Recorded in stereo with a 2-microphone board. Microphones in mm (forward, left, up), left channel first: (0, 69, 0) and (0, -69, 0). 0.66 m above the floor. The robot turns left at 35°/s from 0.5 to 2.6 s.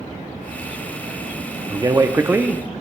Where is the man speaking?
130° right, 0.6 m; by 2.6 s 165° right, 0.6 m.